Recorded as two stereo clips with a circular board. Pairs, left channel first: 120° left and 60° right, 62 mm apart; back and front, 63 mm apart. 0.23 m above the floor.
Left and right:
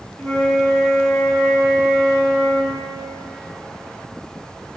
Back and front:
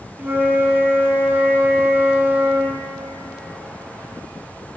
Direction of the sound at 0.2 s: 50° left.